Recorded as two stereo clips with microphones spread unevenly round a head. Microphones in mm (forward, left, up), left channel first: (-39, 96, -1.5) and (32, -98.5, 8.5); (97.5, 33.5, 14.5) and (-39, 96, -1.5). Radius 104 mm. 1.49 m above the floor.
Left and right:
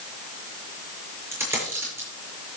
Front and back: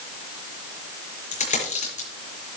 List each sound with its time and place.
1.3 s a dropped coin: 10° left, 6 m